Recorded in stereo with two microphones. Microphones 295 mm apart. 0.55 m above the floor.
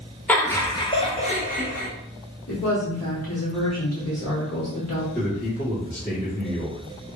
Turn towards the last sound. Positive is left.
turn(degrees=30)  # may be behind; listen again after turning